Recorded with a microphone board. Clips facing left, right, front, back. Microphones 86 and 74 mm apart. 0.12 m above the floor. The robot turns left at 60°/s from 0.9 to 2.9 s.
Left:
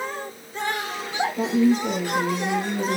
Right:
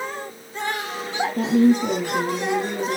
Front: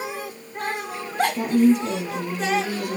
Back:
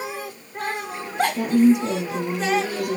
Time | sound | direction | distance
1.4 | a woman speaking | 80° right | 3.5 m